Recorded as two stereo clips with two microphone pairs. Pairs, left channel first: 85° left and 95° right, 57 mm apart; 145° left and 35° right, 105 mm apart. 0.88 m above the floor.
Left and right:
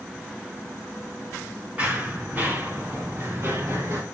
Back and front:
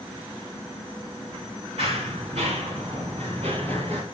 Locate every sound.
1.8 s running footsteps: 30° right, 4.5 m; by 4.0 s 60° right, 4 m